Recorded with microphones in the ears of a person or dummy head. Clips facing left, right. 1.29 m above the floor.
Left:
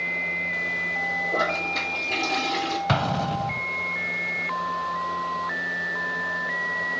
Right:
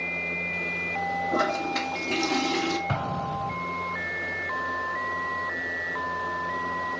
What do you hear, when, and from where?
1.3 s a toilet flushing: 75° right (ahead or behind), 2.5 m
2.9 s an explosion: 75° left (ahead or behind), 0.6 m